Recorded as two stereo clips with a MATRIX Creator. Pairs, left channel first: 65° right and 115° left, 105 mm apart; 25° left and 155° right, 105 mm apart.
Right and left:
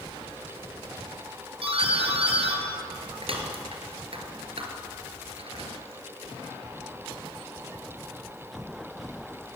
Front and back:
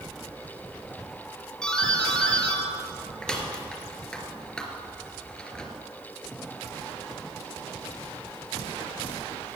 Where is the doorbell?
105° left, 3 m.